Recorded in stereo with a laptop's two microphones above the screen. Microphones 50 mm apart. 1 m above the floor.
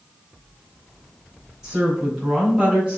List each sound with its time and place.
1.6 s a woman speaking: 10° right (ahead or behind), 4 m; by 3.0 s 15° right (ahead or behind), 4.5 m